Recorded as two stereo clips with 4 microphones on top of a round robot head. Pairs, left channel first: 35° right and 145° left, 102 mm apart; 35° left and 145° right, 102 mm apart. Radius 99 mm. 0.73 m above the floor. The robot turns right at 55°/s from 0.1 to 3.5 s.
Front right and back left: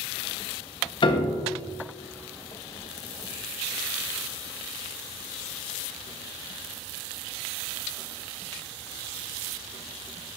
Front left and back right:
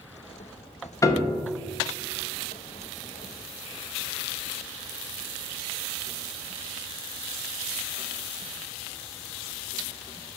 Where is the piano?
20° right, 0.6 m; by 1.4 s 5° left, 0.6 m.